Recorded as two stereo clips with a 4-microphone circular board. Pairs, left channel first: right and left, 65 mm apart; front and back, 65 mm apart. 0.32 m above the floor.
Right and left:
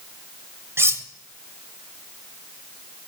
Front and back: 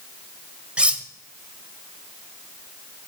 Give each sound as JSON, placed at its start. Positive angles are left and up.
{"t": 0.8, "sound": "cutlery clinking", "azimuth_deg": 115, "distance_m": 0.8}